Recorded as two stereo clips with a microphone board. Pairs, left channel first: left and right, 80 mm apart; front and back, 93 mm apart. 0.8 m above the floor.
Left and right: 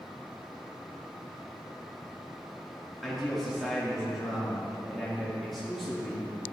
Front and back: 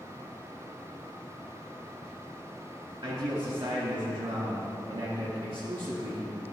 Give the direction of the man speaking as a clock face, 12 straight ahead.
6 o'clock.